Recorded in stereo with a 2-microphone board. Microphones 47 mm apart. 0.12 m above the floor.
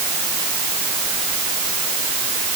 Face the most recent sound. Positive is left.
No sound to turn to.